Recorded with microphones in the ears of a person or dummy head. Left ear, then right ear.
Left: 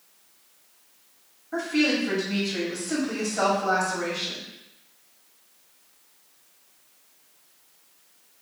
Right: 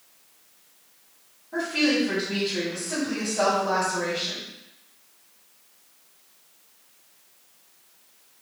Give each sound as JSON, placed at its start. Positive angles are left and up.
{"t": 1.5, "sound": "a woman speaking", "side_deg": 70, "distance_m": 2.0}